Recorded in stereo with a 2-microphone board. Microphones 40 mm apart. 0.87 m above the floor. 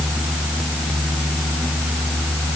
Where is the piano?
I don't hear a piano.